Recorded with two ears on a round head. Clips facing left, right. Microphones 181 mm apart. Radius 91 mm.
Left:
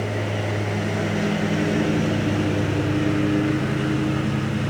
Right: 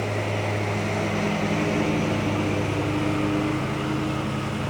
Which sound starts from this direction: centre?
A lawn mower, at 0.0 s.